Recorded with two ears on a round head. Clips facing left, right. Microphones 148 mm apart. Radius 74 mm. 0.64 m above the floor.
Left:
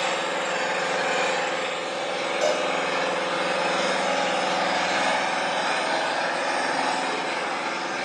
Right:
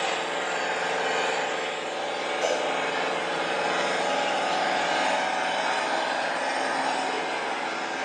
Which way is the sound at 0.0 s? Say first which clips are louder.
Left 2 dB; 70° left (ahead or behind).